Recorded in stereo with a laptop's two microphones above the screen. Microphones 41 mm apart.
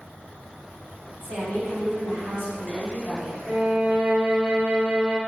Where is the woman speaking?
70° right (ahead or behind), 2.0 m.